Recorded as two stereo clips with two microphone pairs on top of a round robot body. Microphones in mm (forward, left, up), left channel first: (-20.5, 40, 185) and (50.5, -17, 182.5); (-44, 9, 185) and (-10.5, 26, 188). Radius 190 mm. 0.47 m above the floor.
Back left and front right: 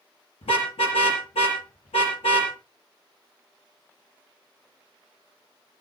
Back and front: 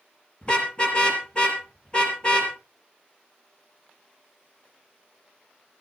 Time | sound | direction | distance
0.4 | a car horn | 145° left | 5.5 m